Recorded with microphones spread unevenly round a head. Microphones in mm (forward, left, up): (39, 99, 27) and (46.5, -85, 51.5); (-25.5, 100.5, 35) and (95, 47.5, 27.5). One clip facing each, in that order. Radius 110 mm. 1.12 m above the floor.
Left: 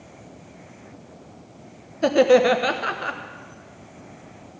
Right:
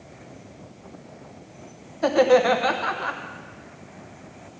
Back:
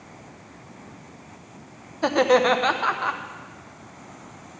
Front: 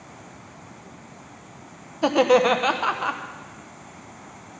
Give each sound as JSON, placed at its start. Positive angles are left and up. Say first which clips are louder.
{"t": 2.0, "sound": "laughter", "louder": "left 2 dB, front 1 dB", "azimuth_deg": 50, "distance_m": 1.0}